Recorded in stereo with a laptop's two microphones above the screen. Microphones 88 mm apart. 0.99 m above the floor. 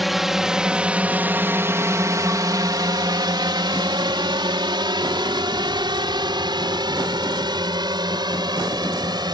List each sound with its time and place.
0.0 s a drone: centre (ahead or behind); by 9.3 s 55° right (ahead or behind)